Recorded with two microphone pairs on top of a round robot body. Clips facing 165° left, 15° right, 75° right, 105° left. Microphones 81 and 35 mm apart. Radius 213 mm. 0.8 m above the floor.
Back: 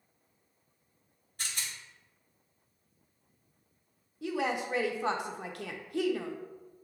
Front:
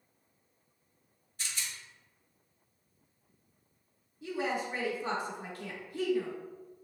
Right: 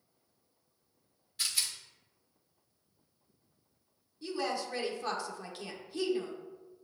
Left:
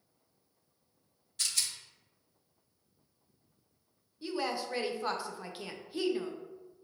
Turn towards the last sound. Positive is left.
turn(degrees=175)